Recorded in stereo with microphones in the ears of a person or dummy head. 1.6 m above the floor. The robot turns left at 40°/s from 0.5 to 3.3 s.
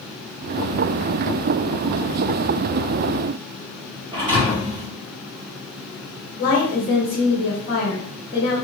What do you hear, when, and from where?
4.1 s a thud: 20° right (ahead or behind), 1.8 m
6.4 s a woman speaking: 50° left (ahead or behind), 1.0 m